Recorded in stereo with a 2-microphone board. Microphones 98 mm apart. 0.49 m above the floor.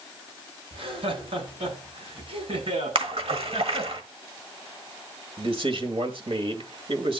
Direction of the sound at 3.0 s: 75° right (ahead or behind).